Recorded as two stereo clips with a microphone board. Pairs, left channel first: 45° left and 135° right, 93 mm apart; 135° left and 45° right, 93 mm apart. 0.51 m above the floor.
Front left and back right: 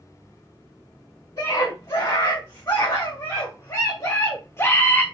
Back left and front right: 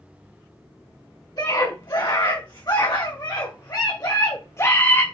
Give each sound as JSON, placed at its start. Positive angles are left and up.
{"t": 1.4, "sound": "a scream", "azimuth_deg": 95, "distance_m": 4.0}